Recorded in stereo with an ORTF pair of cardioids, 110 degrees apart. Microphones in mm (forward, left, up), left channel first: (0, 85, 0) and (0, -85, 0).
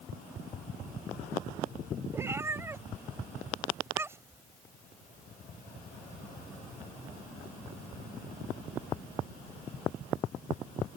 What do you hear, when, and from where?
2.1 s a cat meowing: 15° right